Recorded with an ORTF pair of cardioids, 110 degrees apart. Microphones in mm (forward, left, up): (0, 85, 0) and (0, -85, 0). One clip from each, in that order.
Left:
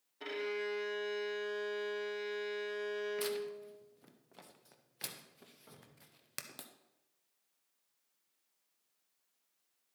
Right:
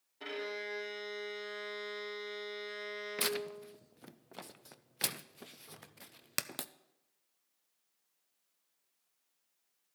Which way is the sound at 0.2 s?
5° left.